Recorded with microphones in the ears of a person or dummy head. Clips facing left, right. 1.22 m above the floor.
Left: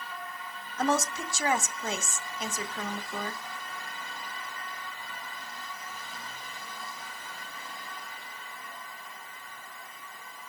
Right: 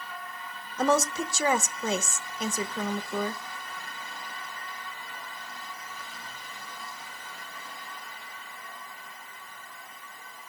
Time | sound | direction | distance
0.8 | a woman speaking | 70° right (ahead or behind) | 0.8 m